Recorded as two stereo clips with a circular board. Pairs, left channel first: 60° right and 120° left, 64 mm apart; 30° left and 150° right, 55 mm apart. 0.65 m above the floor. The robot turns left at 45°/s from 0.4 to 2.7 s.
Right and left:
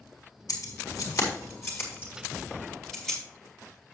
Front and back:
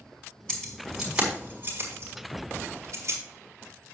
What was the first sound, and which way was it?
Keys jangling, 45° right.